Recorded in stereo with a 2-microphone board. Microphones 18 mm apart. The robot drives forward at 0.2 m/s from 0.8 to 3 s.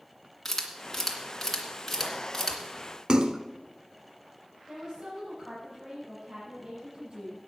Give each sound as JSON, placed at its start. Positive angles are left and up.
{"t": 0.5, "sound": "a camera shutter", "side_deg": 10, "distance_m": 2.0}
{"t": 3.1, "sound": "a splash", "side_deg": -50, "distance_m": 0.7}
{"t": 4.7, "sound": "a woman speaking", "side_deg": -60, "distance_m": 5.5}